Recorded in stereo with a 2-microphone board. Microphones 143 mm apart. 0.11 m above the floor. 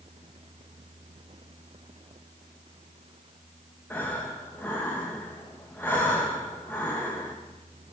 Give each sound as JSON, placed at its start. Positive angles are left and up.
{"t": 3.9, "sound": "breathing", "side_deg": 15, "distance_m": 1.3}